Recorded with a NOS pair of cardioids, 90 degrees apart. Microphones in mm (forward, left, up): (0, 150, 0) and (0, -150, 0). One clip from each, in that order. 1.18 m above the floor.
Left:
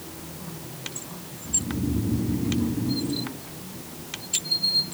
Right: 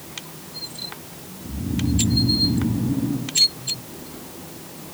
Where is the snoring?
45° right, 4.5 m.